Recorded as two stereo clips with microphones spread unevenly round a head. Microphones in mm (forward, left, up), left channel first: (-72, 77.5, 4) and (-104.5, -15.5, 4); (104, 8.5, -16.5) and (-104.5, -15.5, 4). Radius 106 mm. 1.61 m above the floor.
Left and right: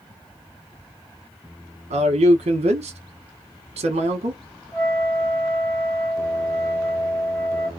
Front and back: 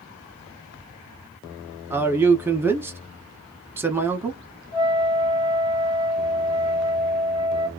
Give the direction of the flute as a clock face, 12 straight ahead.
11 o'clock.